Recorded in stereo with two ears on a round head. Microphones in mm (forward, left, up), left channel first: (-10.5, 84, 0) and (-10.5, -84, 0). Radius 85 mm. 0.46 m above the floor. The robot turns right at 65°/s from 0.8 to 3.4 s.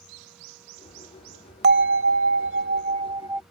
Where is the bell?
125° right; by 3.4 s 10° right.